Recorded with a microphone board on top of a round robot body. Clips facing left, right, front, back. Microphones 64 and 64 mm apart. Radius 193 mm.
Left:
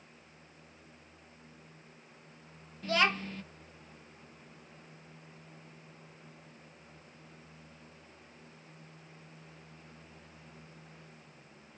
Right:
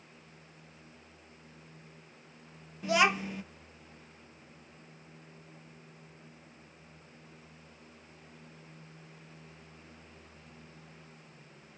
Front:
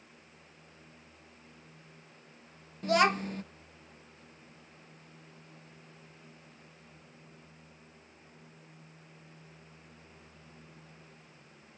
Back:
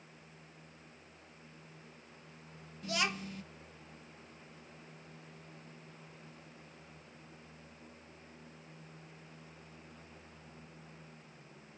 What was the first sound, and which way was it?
A child speaking, 20° right.